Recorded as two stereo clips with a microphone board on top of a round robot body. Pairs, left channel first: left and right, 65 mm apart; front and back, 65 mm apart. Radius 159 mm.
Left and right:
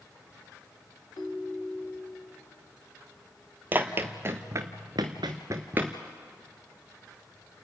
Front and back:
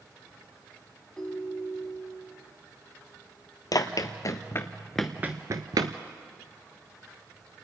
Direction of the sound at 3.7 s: 30° right.